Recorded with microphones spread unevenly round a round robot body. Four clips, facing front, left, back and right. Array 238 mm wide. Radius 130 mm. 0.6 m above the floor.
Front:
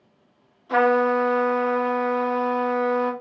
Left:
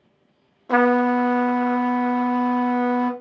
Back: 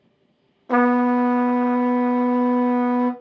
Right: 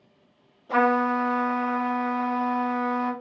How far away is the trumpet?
About 0.6 m.